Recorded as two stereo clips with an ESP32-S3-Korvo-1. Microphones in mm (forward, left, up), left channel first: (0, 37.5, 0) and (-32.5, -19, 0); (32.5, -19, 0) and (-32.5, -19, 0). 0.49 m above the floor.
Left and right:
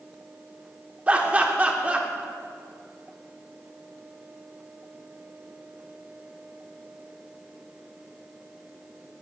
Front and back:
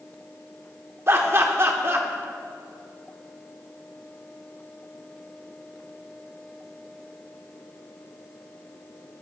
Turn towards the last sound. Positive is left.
turn(degrees=-175)